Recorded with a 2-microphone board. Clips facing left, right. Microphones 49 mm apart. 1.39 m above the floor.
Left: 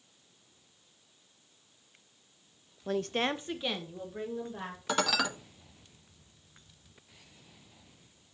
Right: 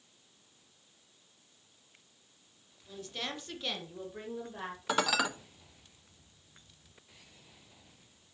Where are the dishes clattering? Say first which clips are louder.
Even; 5° right (ahead or behind), 0.6 m.